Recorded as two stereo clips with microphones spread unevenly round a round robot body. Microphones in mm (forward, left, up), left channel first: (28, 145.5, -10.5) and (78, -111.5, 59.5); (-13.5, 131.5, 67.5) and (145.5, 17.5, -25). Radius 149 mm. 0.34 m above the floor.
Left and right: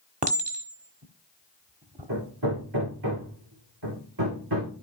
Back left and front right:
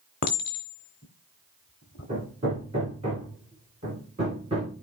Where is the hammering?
100° right, 4 m.